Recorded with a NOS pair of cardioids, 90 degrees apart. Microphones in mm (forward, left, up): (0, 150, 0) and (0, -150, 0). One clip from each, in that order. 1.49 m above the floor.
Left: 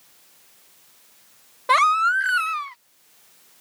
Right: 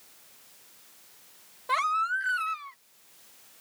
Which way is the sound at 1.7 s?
60° left.